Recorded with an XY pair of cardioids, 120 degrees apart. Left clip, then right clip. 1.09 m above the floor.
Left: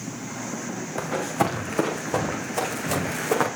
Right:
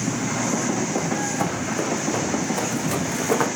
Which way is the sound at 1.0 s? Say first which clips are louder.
Right 1 dB; 35° left.